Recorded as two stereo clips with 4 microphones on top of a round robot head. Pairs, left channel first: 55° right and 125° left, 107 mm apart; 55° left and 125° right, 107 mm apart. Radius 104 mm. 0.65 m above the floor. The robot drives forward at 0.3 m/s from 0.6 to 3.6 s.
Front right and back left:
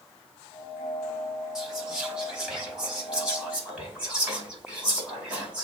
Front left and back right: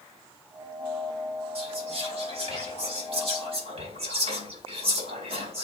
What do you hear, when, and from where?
1.6 s whispering: 145° right, 4 m; by 5.7 s 150° right, 4.5 m